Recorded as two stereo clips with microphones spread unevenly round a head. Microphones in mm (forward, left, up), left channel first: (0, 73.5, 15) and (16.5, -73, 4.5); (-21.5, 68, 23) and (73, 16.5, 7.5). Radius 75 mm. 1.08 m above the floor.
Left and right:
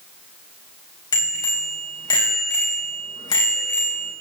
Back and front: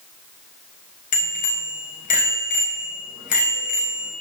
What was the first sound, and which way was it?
A bicycle bell, 160° left.